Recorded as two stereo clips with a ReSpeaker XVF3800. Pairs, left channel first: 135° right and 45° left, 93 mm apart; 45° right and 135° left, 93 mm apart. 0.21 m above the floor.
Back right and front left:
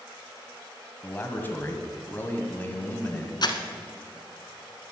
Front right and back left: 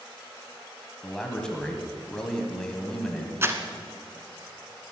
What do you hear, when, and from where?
1.0 s a man speaking: 115° right, 1.7 m
3.4 s crumpling: 165° right, 1.1 m